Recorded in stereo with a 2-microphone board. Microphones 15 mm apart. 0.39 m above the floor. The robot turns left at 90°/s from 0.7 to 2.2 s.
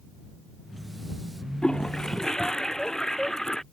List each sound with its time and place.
1.6 s a toilet flushing: 100° left; by 3.6 s 45° left